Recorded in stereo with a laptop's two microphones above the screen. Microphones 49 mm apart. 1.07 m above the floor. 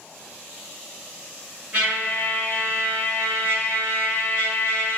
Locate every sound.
1.7 s a trumpet: 30° right (ahead or behind), 1.1 m